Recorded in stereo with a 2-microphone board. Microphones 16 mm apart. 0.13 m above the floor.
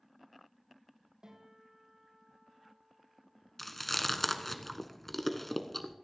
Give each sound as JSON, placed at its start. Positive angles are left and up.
{"t": 1.2, "sound": "a guitar", "side_deg": -80, "distance_m": 7.5}
{"t": 3.6, "sound": "chewing", "side_deg": 10, "distance_m": 1.1}